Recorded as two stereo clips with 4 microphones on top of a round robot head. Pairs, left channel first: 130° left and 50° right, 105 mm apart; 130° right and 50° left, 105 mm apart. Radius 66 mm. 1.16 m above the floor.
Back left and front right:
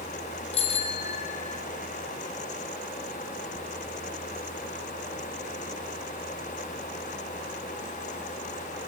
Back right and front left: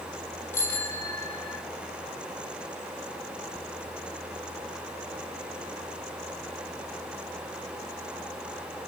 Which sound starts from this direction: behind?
A bicycle bell, at 0.5 s.